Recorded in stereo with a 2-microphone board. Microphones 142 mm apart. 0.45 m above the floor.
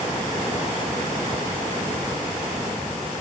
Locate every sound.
Only background noise.